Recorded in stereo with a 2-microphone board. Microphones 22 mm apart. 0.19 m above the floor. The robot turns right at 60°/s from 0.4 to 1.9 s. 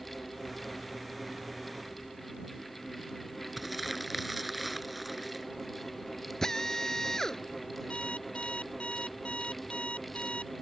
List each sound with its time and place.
3.6 s crumpling: 5° right (ahead or behind)
6.4 s a drill: 20° left (ahead or behind)
7.9 s an alarm clock: 70° left (ahead or behind)